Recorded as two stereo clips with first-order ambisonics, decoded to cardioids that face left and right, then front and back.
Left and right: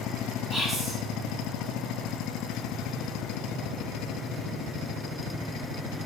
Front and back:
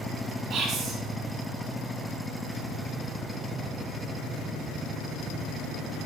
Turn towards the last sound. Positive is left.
turn(degrees=-150)